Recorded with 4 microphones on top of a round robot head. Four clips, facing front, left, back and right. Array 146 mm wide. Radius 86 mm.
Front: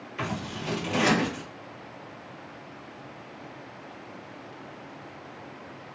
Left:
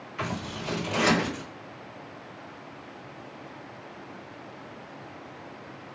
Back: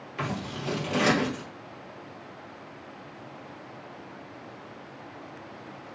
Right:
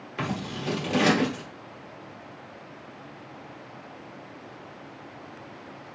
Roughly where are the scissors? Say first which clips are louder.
Right 2 dB, even; right.